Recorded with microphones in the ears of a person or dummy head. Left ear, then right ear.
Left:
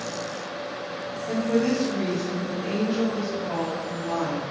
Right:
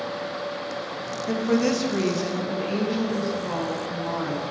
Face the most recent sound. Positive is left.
turn(degrees=0)  # may be behind; listen again after turning